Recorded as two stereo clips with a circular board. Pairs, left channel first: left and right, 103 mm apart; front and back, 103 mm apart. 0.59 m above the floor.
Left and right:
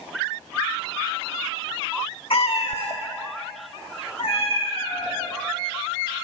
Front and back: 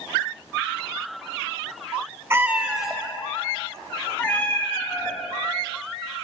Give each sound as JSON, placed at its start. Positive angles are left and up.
{"t": 2.3, "sound": "a cat meowing", "azimuth_deg": 115, "distance_m": 1.0}